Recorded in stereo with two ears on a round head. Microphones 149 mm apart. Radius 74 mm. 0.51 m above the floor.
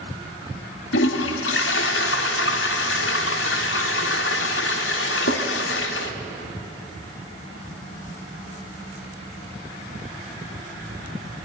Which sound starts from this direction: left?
A toilet flushing, at 0.9 s.